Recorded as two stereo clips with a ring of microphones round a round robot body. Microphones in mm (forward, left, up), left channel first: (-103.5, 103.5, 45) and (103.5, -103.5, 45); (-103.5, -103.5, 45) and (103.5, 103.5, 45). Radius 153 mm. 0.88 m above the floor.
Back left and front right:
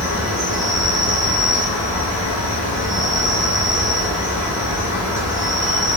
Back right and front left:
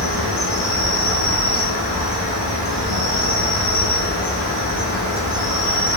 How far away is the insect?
About 1.4 m.